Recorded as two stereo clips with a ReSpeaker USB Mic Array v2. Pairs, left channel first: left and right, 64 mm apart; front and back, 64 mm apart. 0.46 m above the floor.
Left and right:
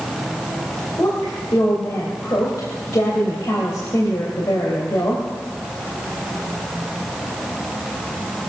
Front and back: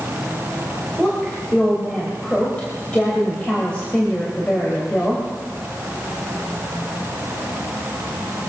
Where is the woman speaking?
70° left, 2.5 m.